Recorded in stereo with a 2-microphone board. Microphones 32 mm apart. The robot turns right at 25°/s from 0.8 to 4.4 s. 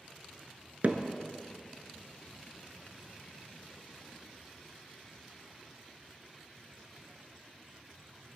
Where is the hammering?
55° right (ahead or behind), 0.8 m; by 1.0 s 50° right (ahead or behind), 0.8 m.